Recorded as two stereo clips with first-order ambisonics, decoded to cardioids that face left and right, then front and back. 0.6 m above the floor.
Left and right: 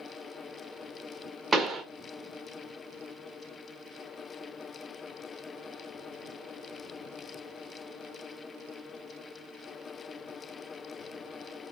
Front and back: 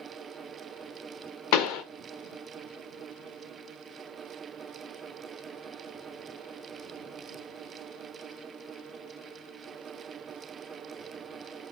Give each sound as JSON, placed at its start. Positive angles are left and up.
{"t": 1.5, "sound": "a pop", "azimuth_deg": -10, "distance_m": 0.5}